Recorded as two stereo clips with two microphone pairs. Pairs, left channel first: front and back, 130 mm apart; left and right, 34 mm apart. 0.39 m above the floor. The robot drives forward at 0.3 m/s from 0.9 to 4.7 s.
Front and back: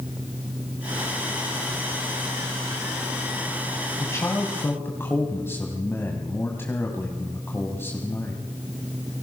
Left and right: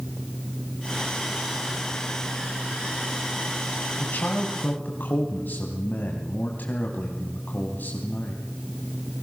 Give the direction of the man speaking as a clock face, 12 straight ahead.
10 o'clock.